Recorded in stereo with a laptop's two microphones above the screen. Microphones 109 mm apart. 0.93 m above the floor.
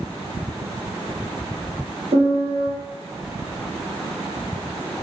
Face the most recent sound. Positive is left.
turn(degrees=-65)  # may be behind; listen again after turning